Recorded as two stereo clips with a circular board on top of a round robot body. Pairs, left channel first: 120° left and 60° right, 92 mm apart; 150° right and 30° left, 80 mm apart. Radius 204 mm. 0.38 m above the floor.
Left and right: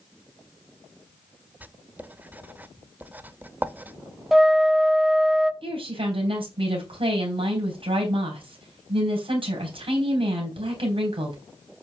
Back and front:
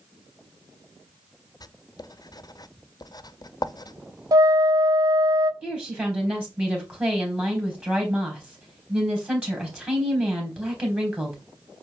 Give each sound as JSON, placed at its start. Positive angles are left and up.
{"t": 1.6, "sound": "writing", "azimuth_deg": -130, "distance_m": 0.9}
{"t": 4.3, "sound": "a flute", "azimuth_deg": 25, "distance_m": 1.2}
{"t": 5.6, "sound": "a woman speaking", "azimuth_deg": -45, "distance_m": 3.5}